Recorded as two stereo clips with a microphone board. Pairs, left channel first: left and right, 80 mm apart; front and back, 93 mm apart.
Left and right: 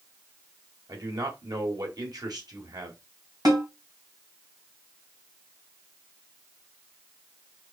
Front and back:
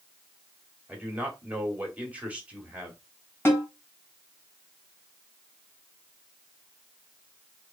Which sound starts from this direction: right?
A man speaking, at 0.9 s.